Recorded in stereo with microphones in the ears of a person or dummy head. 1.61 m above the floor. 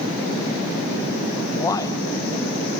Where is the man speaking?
15° left (ahead or behind), 1.3 m.